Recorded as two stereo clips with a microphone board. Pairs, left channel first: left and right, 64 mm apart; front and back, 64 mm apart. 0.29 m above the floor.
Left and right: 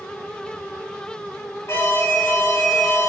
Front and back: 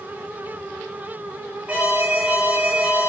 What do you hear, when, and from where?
1.7 s an alarm: 115° left, 3 m